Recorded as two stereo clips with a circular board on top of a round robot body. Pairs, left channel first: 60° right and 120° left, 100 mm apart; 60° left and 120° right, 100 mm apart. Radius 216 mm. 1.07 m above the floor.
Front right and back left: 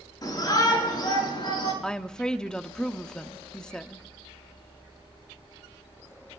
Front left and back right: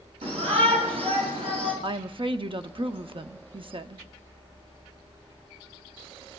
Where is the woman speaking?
140° right, 0.8 m.